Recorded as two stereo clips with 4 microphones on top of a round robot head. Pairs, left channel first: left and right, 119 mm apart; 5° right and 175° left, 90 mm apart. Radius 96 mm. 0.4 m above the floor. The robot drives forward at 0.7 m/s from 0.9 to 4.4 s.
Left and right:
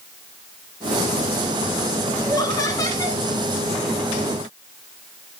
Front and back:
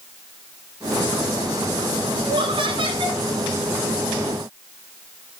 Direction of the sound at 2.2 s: 150° left.